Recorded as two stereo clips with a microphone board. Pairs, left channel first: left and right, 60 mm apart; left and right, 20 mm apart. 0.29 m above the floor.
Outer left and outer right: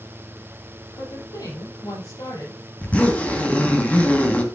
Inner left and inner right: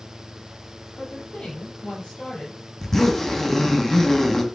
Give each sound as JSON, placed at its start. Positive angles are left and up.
{"t": 1.0, "sound": "a woman speaking", "side_deg": 80, "distance_m": 8.0}
{"t": 2.8, "sound": "a zipper", "side_deg": 25, "distance_m": 2.0}